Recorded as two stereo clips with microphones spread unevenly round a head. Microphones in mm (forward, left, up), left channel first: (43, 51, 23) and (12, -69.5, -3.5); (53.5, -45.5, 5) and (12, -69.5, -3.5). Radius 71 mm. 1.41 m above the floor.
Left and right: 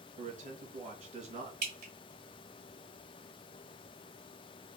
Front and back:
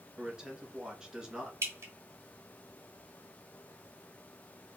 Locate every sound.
0.2 s a man speaking: 75° right, 2 m
1.6 s dripping: 135° right, 1.7 m